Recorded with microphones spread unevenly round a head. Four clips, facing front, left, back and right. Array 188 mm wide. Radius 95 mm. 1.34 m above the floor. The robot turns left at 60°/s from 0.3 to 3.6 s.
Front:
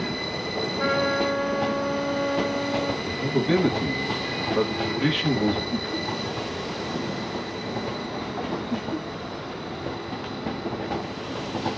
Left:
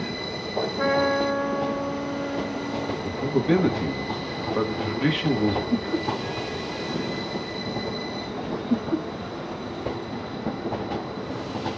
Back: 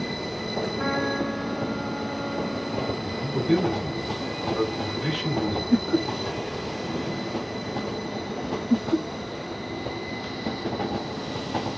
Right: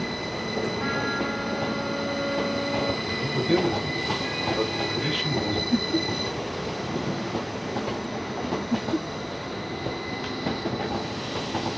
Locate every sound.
0.8 s a trumpet: 80° left, 2 m; by 2.9 s 50° right, 2 m
3.0 s a man speaking: 80° left, 2.5 m; by 5.6 s 50° left, 2.5 m
5.7 s laughter: 160° left, 0.7 m
8.7 s laughter: 135° left, 0.7 m